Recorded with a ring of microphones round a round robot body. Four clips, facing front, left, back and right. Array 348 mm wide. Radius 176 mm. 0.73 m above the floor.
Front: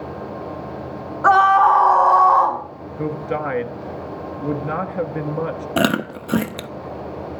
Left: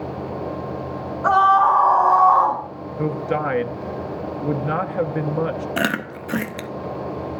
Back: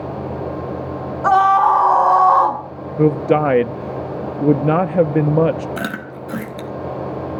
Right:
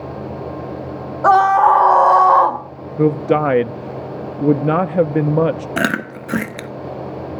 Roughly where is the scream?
Right.